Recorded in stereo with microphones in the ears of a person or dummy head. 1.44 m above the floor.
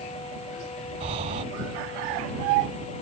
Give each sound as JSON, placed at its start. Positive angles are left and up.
{"t": 1.0, "sound": "breathing", "side_deg": -30}